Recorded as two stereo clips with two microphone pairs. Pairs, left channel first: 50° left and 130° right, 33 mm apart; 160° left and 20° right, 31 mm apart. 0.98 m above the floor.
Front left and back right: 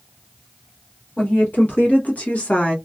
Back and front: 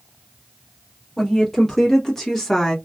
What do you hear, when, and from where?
1.2 s a woman speaking: 85° left, 1.8 m; by 2.8 s 95° left, 0.8 m